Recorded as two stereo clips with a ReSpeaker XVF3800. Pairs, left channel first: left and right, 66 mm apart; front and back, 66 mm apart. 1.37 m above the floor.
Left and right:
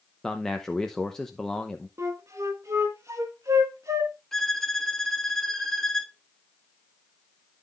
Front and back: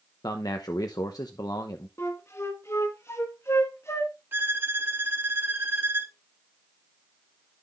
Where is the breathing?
No breathing in this recording.